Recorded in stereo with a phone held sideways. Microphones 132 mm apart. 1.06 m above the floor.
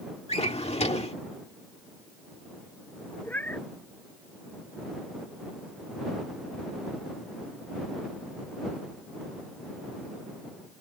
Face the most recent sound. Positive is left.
turn(degrees=15)  # may be behind; listen again after turning